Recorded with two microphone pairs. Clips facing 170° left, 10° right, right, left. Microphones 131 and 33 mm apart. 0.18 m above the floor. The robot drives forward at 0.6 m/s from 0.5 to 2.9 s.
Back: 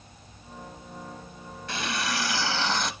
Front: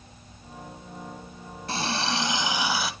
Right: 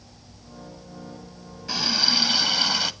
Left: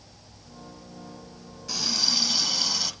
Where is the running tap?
40° right, 1.2 m; by 2.9 s 90° right, 1.0 m.